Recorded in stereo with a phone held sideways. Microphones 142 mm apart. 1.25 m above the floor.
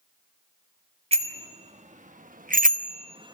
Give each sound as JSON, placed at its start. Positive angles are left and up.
{"t": 1.1, "sound": "a bicycle bell", "side_deg": -45, "distance_m": 2.0}